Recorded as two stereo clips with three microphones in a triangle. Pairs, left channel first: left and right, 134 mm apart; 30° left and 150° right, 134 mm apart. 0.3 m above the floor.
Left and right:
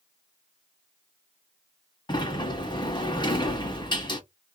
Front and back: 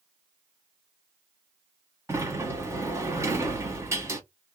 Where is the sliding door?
140° left, 1.1 m.